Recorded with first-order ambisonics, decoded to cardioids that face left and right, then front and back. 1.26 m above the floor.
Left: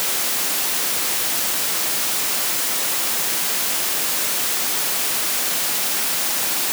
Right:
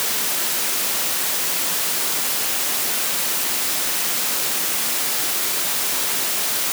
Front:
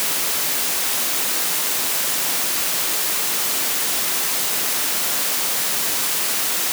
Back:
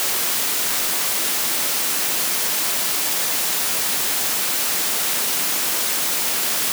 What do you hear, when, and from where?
Only background noise.